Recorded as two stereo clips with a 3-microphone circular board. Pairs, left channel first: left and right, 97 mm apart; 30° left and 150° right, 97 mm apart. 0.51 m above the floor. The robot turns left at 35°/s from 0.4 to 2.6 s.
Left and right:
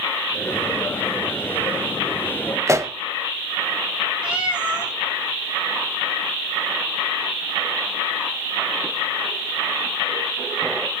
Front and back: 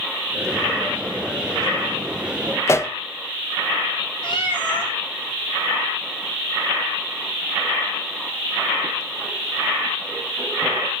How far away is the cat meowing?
About 4.5 m.